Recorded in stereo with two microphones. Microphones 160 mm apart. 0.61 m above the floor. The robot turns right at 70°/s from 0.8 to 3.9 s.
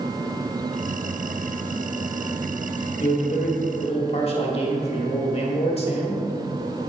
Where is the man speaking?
65° left, 1.6 m; by 6.2 s 125° left, 1.6 m.